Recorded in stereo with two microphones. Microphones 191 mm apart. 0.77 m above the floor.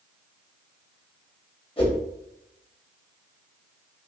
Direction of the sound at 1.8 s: 30° left (ahead or behind).